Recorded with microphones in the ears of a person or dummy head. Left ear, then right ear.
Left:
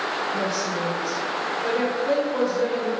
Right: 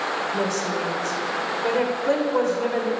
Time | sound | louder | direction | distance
0.3 | a woman speaking | right 1 dB | 40° right (ahead or behind) | 1.9 m